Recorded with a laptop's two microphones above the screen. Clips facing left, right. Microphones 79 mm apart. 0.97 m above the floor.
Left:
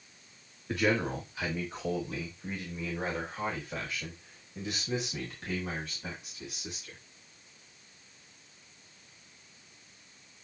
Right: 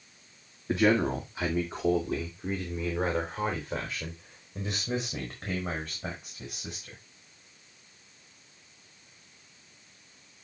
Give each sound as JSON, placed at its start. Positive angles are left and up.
{"t": 0.7, "sound": "a man speaking", "side_deg": -25, "distance_m": 1.9}